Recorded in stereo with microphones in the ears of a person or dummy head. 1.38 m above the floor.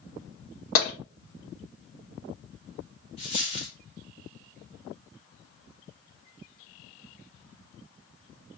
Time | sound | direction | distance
0.8 | tapping | 45° left (ahead or behind) | 1.6 m
3.2 | a dropped coin | 35° left (ahead or behind) | 1.6 m